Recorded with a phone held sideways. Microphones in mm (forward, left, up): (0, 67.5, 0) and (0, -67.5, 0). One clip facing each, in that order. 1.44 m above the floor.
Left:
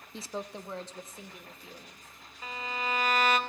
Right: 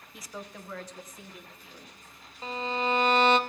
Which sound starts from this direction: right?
A violin, at 2.4 s.